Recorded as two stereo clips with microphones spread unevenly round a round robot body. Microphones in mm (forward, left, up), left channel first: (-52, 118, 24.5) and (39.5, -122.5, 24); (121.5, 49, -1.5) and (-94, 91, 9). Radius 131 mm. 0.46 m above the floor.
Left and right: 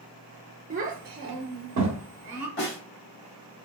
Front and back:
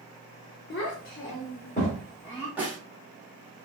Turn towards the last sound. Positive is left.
turn(degrees=85)